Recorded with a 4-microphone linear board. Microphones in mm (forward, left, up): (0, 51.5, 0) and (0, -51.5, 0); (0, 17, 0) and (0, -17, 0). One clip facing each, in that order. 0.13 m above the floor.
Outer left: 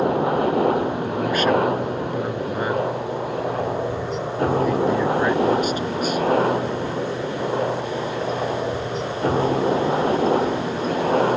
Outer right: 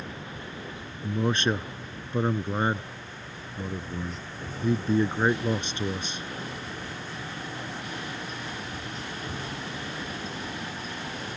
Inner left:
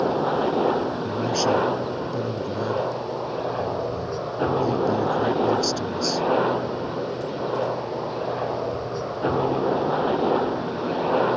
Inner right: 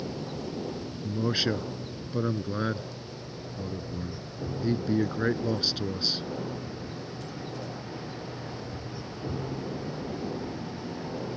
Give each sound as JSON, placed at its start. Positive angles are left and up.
{"t": 0.0, "sound": "a helicopter", "side_deg": 70}
{"t": 1.0, "sound": "a man speaking", "side_deg": -30}